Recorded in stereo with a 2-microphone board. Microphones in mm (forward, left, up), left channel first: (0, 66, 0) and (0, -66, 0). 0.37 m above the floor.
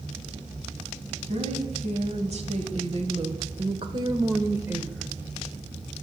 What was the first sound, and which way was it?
A woman speaking, 55° right (ahead or behind).